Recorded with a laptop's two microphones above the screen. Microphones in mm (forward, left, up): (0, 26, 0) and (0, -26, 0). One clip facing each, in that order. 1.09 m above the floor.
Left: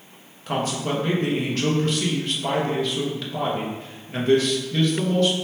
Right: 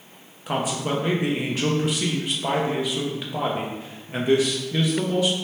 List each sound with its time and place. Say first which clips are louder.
0.5 s a man speaking: even; 10° right (ahead or behind), 0.5 m